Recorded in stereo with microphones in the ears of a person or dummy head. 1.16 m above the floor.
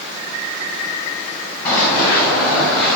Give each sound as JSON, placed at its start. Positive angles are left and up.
{"t": 1.6, "sound": "running footsteps", "side_deg": 15, "distance_m": 8.0}